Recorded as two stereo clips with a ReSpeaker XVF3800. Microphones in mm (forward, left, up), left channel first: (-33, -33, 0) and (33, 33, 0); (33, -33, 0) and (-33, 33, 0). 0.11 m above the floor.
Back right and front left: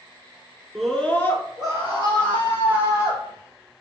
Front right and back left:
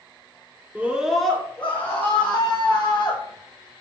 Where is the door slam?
I don't hear a door slam.